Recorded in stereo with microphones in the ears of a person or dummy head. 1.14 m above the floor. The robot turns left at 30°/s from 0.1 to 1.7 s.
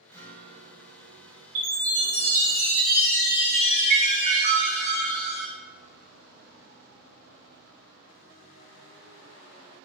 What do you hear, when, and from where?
0.1 s a guitar: 15° left, 0.6 m; by 1.4 s 25° right, 0.6 m
1.6 s a chime: 50° right (ahead or behind), 0.7 m; by 5.5 s 45° right (ahead or behind), 0.7 m